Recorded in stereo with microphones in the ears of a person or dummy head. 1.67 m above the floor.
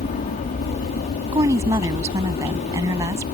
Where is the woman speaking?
20° right (ahead or behind).